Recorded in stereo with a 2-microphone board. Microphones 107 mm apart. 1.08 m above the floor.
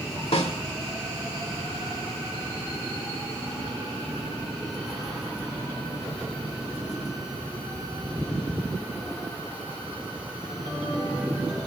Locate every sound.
0.3 s a snare drum: 75° left (ahead or behind), 2.5 m